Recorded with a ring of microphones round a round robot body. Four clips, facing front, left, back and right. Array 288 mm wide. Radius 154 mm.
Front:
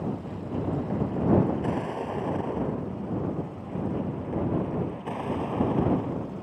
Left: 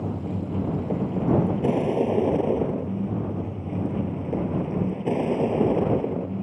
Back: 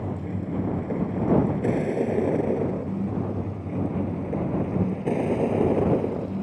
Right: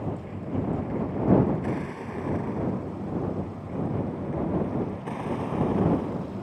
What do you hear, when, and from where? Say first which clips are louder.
0.0 s a vehicle: left 4 dB, back 2 dB; 120° left; by 6.4 s 130° left